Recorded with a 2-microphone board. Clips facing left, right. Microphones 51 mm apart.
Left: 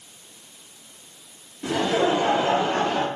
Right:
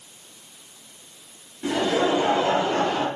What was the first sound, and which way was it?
Laughter, 10° right (ahead or behind).